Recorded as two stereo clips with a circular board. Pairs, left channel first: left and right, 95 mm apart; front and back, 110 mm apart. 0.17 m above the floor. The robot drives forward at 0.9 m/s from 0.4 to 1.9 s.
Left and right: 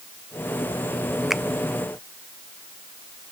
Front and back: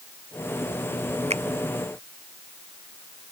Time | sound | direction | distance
1.3 | a finger snap | 175° right | ?